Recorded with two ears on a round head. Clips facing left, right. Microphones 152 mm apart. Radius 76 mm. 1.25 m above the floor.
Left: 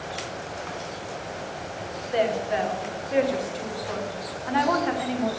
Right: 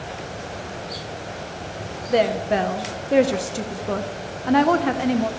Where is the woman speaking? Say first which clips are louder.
Right 5 dB; 60° right (ahead or behind), 1.0 m.